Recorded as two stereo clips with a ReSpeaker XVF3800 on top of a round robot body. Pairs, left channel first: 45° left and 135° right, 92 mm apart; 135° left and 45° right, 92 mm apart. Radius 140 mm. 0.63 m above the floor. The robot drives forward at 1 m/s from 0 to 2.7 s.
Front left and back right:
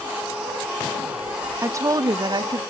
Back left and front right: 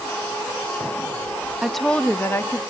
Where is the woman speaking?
120° right, 0.8 m; by 2.6 s 165° right, 1.4 m.